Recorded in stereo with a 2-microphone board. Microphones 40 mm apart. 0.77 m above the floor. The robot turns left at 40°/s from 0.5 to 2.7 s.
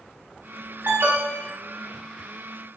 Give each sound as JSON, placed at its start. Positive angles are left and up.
{"t": 0.8, "sound": "an alarm", "side_deg": -60, "distance_m": 8.0}